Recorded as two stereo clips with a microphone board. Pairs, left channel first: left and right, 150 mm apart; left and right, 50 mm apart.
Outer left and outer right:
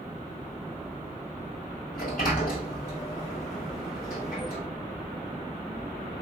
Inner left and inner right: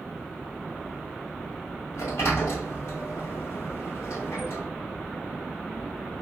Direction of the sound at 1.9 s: 70° left (ahead or behind).